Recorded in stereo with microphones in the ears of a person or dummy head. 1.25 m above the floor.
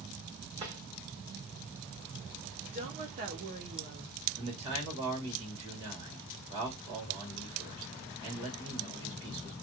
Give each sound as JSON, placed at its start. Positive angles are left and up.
{"t": 0.6, "sound": "a drawer", "side_deg": -25, "distance_m": 1.8}
{"t": 2.7, "sound": "a woman speaking", "side_deg": -35, "distance_m": 0.8}
{"t": 4.3, "sound": "a man speaking", "side_deg": -30, "distance_m": 1.9}